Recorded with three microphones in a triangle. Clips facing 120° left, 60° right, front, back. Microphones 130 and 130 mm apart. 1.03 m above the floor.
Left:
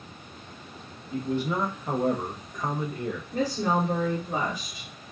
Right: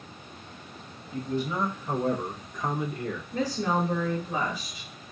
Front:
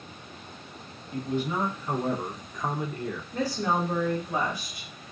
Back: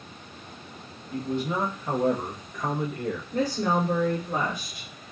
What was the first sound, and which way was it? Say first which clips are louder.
A man speaking: left 2 dB, back 1 dB; 125° left.